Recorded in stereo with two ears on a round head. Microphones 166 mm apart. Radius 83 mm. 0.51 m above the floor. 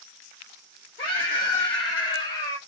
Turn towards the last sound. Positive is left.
turn(degrees=20)  # may be behind; listen again after turning